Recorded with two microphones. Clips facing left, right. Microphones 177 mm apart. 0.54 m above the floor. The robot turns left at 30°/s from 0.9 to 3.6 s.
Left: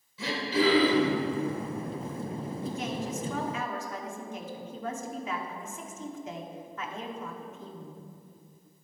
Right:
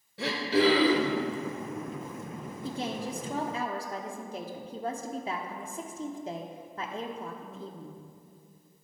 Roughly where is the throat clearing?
Right.